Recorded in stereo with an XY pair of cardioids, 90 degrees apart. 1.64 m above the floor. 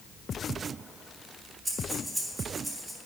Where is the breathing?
25° right, 3 m.